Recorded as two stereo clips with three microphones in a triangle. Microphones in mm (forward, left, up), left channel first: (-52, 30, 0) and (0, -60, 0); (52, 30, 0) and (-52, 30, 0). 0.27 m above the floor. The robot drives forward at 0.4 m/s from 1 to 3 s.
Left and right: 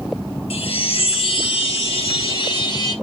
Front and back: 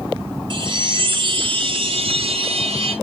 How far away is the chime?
About 1.0 m.